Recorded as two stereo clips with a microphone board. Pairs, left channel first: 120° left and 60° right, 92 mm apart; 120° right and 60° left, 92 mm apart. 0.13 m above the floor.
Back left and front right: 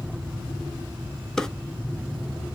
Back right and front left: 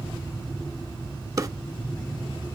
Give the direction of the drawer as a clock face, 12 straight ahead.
11 o'clock.